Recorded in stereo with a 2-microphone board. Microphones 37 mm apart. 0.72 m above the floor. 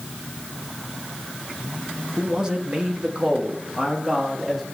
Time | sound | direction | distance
2.2 | a man speaking | 20° right (ahead or behind) | 1.1 m